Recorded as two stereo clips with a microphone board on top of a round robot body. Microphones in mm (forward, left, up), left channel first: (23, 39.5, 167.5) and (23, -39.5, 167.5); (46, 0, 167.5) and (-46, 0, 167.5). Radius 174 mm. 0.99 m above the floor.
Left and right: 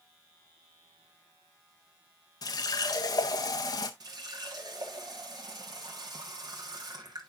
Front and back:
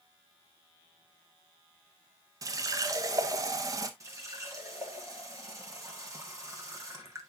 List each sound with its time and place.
2.4 s a running tap: 125° left, 0.6 m
4.0 s a running tap: 125° right, 1.5 m